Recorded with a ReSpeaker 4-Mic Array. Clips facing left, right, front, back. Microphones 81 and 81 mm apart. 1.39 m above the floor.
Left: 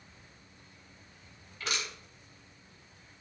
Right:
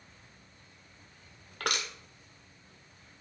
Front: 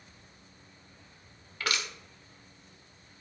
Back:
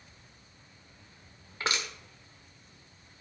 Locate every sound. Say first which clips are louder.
1.6 s crushing: right 4 dB, back 1 dB; 115° right, 1.5 m